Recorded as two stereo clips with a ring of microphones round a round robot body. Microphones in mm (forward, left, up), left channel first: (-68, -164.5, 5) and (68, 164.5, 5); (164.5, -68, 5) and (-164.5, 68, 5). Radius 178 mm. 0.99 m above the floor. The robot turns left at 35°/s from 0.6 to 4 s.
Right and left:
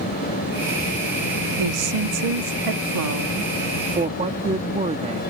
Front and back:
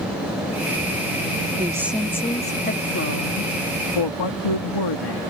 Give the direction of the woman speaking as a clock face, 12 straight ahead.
9 o'clock.